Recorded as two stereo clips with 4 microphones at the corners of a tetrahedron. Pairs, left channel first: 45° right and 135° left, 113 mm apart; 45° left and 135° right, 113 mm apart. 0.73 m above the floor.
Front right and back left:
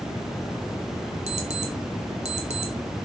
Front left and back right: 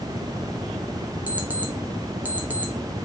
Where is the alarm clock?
150° left, 0.6 m.